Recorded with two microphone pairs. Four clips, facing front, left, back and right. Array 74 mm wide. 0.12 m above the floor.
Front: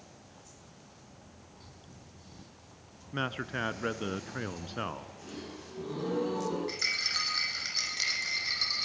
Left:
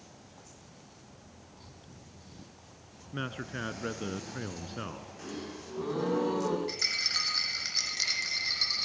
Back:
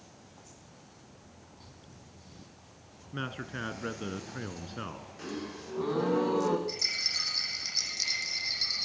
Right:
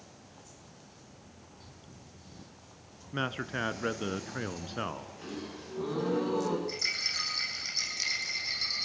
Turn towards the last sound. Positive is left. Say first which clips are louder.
# left 1 dB, front 3 dB
turn(degrees=40)